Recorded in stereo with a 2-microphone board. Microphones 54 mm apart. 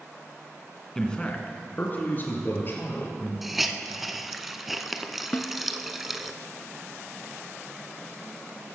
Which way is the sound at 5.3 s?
35° left (ahead or behind).